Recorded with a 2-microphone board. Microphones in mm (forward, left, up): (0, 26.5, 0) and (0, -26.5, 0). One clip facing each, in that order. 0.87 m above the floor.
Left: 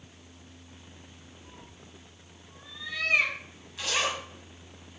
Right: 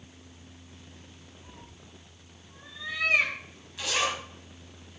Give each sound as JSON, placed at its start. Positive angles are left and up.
{"t": 1.4, "sound": "a cat meowing", "side_deg": -35, "distance_m": 2.5}
{"t": 3.8, "sound": "a zipper", "side_deg": 0, "distance_m": 2.0}